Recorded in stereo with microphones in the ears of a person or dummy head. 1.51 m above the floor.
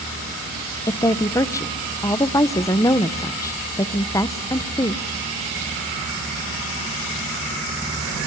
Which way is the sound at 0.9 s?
15° left (ahead or behind).